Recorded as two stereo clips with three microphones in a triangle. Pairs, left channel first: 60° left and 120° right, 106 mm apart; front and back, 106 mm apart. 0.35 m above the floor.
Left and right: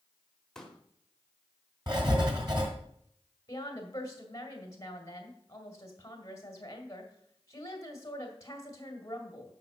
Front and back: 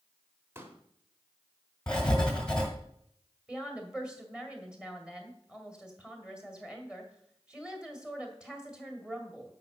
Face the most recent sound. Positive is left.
turn(degrees=100)